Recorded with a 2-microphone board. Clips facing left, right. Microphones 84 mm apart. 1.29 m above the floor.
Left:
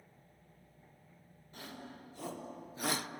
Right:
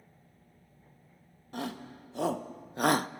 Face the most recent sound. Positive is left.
turn(degrees=-35)  # may be behind; listen again after turning